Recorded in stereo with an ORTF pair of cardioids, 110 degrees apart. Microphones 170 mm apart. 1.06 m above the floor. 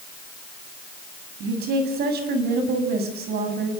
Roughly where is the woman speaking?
Right.